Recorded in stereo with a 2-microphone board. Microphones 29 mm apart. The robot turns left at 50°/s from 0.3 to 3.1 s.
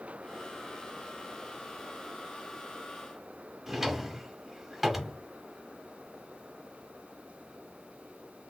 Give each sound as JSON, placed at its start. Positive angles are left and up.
{"t": 3.7, "sound": "a drawer", "side_deg": -5, "distance_m": 0.5}